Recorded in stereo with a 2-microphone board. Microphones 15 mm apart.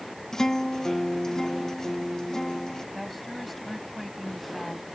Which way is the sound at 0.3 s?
30° left (ahead or behind).